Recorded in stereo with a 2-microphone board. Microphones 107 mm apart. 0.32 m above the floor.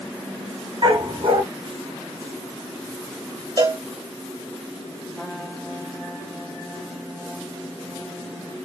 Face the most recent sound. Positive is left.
turn(degrees=5)  # may be behind; listen again after turning